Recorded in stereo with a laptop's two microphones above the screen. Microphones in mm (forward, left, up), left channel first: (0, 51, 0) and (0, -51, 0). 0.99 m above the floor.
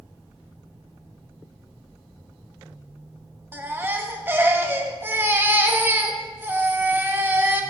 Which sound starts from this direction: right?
A baby crying, at 3.5 s.